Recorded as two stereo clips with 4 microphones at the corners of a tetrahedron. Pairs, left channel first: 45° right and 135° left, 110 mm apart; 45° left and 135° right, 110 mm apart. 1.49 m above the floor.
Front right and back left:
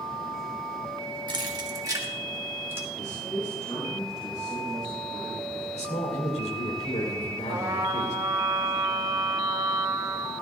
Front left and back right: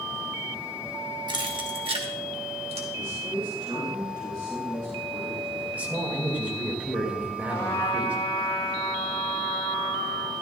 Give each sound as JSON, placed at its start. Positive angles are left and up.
{"t": 1.3, "sound": "keys jangling", "azimuth_deg": 180, "distance_m": 1.2}
{"t": 3.0, "sound": "a man speaking", "azimuth_deg": -90, "distance_m": 3.5}
{"t": 5.7, "sound": "a man speaking", "azimuth_deg": -60, "distance_m": 2.5}
{"t": 7.5, "sound": "a trumpet", "azimuth_deg": 80, "distance_m": 2.0}